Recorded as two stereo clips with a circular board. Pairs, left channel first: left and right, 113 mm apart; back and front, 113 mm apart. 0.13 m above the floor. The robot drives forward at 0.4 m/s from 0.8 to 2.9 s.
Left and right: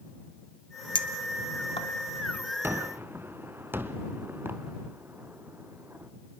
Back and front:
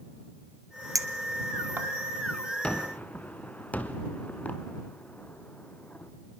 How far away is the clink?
About 1.4 m.